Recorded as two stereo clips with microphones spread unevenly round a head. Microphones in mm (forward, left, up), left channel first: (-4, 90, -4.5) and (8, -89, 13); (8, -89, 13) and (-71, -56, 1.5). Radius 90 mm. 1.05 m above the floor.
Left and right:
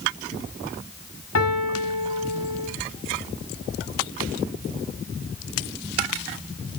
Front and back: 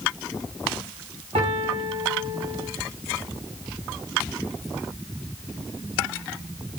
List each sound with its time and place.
1.4 s a piano: 110° left, 2 m